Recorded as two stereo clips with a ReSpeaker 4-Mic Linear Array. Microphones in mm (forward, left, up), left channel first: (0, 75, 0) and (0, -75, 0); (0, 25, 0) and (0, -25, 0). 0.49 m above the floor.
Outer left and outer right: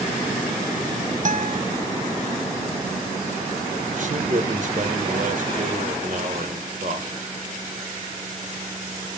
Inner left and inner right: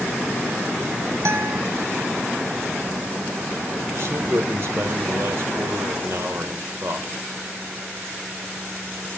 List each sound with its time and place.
1.2 s a guitar: 55° right (ahead or behind), 0.8 m
4.0 s a man speaking: 60° right (ahead or behind), 1.8 m